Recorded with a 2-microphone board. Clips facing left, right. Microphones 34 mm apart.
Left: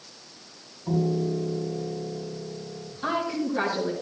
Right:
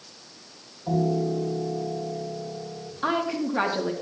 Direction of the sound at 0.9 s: 50° right (ahead or behind).